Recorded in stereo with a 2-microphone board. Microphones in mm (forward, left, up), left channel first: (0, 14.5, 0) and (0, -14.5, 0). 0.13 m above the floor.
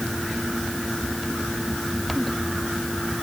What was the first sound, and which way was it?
Only background noise.